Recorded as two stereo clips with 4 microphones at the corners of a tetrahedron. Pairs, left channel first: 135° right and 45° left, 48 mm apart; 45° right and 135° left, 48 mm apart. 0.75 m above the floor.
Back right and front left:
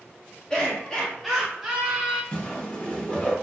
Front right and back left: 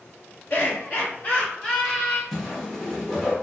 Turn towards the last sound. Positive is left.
turn(degrees=-115)